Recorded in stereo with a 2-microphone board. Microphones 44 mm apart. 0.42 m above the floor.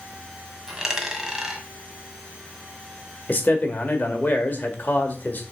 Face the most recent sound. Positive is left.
turn(degrees=40)  # may be behind; listen again after turning